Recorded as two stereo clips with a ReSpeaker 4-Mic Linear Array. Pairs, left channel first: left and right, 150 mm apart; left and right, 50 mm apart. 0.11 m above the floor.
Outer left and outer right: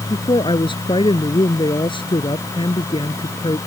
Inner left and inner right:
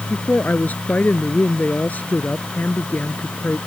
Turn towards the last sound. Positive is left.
turn(degrees=35)  # may be behind; listen again after turning